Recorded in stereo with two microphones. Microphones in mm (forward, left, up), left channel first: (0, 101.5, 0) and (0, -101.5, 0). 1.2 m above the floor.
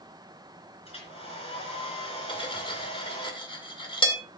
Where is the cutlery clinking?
25° left (ahead or behind), 2 m.